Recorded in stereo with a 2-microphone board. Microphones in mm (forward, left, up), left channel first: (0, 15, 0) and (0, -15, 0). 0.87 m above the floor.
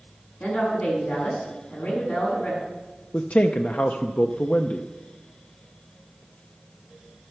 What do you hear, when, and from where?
0.4 s a woman speaking: 60° left (ahead or behind), 7 m
3.1 s a man speaking: 55° left (ahead or behind), 0.6 m